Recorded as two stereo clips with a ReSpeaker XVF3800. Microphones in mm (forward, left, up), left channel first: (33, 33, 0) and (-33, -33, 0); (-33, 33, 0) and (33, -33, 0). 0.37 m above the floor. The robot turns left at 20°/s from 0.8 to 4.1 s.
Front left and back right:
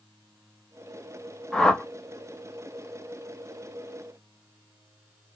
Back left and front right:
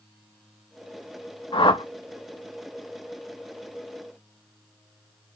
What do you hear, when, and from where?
1.5 s a whoosh: 125° left, 0.6 m; by 1.8 s 120° left, 0.6 m